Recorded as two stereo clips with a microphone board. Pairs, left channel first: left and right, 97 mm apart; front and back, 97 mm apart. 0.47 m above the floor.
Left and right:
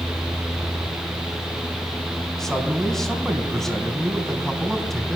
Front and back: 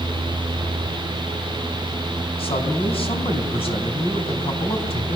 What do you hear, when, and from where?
2.4 s a man speaking: 5° left, 4 m